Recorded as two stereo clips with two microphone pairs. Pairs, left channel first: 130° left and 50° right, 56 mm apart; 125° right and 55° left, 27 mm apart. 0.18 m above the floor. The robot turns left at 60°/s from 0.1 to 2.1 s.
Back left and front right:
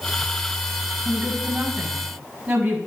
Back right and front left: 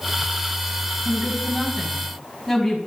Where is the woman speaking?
20° left, 1.6 m; by 2.8 s 45° right, 1.6 m.